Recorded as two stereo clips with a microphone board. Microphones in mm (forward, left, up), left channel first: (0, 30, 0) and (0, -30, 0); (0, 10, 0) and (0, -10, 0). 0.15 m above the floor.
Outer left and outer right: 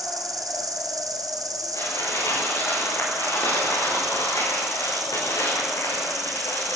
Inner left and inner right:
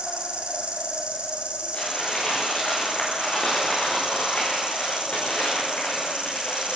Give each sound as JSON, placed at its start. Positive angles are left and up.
{"t": 0.0, "sound": "an insect", "side_deg": -80, "distance_m": 2.5}
{"t": 1.7, "sound": "crumpling", "side_deg": 75, "distance_m": 8.0}